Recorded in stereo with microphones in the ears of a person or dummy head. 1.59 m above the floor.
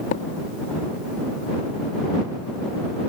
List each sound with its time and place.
0.1 s a thud: 50° left (ahead or behind)